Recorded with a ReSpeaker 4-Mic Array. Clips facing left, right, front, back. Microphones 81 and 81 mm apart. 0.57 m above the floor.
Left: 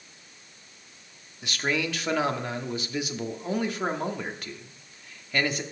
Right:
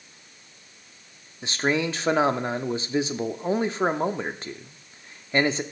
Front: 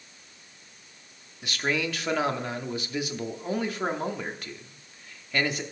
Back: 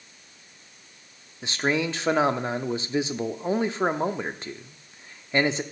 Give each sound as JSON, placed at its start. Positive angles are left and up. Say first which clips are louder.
{"t": 1.4, "sound": "a man speaking", "louder": "right 4 dB, back 3 dB", "azimuth_deg": -135, "distance_m": 0.7}